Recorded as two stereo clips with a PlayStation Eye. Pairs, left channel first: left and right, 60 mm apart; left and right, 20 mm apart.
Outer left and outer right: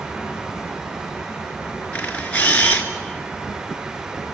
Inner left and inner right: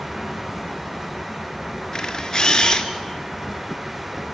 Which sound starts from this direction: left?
A camera shutter, at 1.9 s.